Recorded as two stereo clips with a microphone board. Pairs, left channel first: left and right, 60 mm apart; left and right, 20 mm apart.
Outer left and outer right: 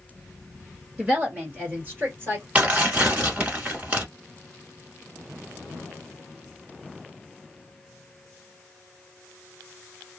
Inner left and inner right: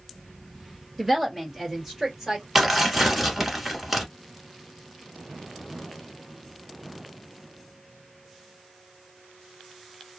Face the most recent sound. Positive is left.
turn(degrees=-20)  # may be behind; listen again after turning